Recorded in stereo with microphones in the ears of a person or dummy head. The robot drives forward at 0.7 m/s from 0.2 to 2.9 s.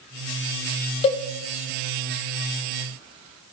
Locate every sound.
1.0 s a cowbell: 25° left (ahead or behind), 0.7 m; by 1.2 s 30° left (ahead or behind), 0.7 m